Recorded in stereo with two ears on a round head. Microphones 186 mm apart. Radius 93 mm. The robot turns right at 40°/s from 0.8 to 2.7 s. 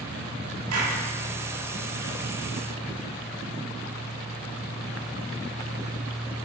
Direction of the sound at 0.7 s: 75° right (ahead or behind).